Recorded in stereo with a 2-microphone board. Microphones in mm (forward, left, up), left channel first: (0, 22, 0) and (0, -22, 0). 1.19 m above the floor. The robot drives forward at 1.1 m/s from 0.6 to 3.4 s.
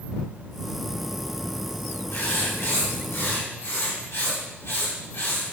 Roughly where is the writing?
Left.